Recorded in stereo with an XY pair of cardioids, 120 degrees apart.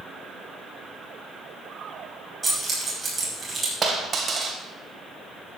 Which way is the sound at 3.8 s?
35° right.